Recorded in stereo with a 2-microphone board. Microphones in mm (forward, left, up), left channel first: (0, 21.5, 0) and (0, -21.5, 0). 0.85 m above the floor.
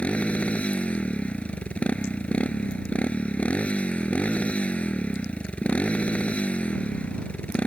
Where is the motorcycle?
35° left (ahead or behind).